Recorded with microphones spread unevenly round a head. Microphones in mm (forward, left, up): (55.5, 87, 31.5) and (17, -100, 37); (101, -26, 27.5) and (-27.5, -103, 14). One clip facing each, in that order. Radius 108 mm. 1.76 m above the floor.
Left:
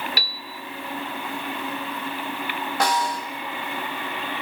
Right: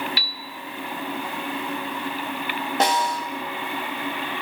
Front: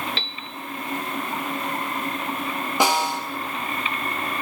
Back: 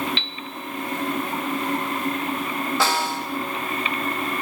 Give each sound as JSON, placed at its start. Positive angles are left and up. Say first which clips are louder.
{"t": 0.2, "sound": "a piano", "louder": "left 1 dB, even", "azimuth_deg": 50, "distance_m": 0.5}
{"t": 2.8, "sound": "a snare drum", "louder": "right 1 dB, front 4 dB", "azimuth_deg": -40, "distance_m": 1.9}